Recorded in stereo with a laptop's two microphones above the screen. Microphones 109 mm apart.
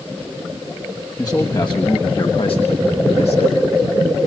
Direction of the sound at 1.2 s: 35° left (ahead or behind).